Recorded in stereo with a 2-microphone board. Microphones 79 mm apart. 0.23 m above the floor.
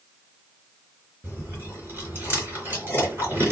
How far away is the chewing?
About 3 m.